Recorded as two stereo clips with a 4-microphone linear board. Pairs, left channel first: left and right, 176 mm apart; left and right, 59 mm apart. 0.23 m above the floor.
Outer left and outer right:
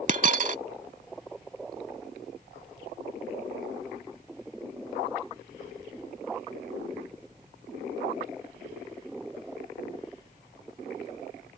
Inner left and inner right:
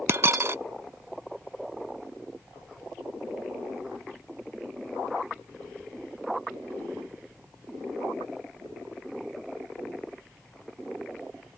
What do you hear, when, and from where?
0.1 s a dropped coin: 50° right (ahead or behind)